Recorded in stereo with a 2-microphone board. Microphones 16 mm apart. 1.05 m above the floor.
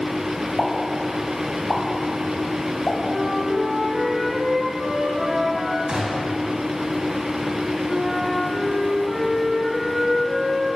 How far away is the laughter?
No laughter in this recording.